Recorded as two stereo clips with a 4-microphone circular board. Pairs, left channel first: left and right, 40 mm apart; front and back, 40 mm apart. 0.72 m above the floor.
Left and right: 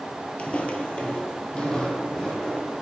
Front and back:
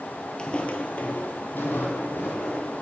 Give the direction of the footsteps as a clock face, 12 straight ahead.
10 o'clock.